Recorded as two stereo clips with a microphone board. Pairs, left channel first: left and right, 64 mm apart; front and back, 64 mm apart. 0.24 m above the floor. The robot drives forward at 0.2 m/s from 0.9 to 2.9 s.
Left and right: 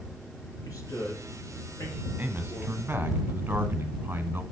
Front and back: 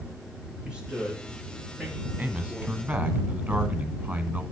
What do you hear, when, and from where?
0.7 s a man speaking: 105° left, 5.5 m; by 2.9 s 110° left, 5.5 m
2.2 s a man speaking: 130° right, 1.3 m; by 4.4 s 135° right, 1.4 m